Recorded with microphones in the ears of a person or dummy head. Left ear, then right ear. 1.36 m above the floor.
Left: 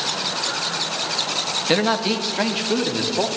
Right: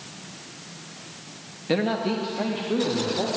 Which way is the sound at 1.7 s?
30° left (ahead or behind).